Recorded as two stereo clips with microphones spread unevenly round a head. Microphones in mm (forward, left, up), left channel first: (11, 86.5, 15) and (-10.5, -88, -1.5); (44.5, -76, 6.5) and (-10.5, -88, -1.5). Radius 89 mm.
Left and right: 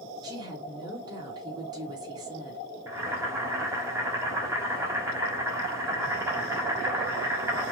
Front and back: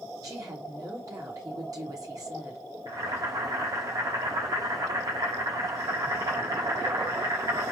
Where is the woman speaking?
165° right, 4 m.